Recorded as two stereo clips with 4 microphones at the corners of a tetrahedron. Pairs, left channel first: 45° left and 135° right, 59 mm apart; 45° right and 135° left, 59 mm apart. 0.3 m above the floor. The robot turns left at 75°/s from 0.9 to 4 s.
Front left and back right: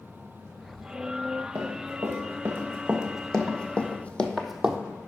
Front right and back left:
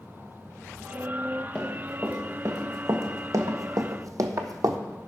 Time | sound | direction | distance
1.6 | running footsteps | 120° right | 2 m